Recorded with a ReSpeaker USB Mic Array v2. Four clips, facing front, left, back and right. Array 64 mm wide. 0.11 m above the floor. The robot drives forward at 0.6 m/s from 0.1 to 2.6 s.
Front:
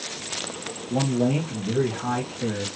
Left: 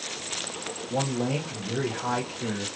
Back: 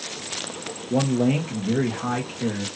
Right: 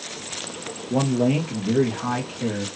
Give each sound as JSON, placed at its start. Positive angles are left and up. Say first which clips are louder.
{"t": 0.9, "sound": "a man speaking", "louder": "right 7 dB, back 2 dB", "azimuth_deg": -140, "distance_m": 1.6}